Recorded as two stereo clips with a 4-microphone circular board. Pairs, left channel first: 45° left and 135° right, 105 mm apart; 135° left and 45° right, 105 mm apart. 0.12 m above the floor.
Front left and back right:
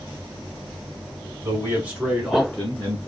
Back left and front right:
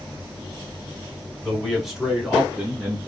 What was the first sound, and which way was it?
A man speaking, 135° right.